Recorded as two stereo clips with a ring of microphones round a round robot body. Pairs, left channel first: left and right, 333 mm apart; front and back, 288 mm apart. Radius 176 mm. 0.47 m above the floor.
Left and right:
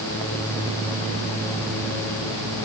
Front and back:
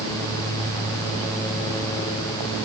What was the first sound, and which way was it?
Only background noise.